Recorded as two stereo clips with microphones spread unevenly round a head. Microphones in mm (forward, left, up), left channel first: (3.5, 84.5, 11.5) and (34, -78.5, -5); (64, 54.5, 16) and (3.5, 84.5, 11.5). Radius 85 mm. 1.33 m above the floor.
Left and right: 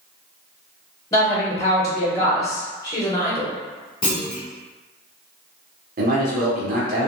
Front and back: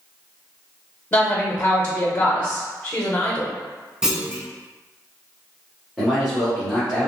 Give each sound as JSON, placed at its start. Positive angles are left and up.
{"t": 1.1, "sound": "a woman speaking", "azimuth_deg": 30, "distance_m": 0.6}
{"t": 4.0, "sound": "a clunk", "azimuth_deg": 75, "distance_m": 0.8}
{"t": 6.0, "sound": "a man speaking", "azimuth_deg": -120, "distance_m": 0.9}